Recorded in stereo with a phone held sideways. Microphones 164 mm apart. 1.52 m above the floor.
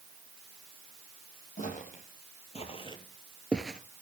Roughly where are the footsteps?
Left.